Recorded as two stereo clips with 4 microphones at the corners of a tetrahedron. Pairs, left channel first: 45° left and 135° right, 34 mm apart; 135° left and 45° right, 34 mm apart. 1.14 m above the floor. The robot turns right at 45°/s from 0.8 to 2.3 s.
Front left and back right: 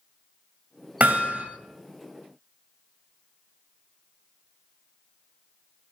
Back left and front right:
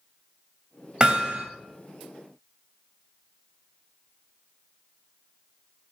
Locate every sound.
1.0 s hammering: 110° right, 2 m; by 1.4 s 90° right, 2 m